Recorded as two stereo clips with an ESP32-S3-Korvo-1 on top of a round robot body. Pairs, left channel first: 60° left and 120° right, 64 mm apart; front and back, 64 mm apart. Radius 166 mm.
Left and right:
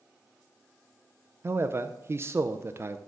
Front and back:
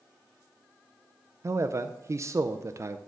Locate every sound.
1.4 s a man speaking: 160° right, 0.6 m